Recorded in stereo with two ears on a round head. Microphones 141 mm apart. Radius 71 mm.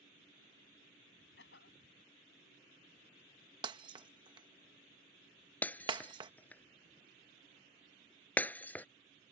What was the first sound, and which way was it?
A cough, 90° left.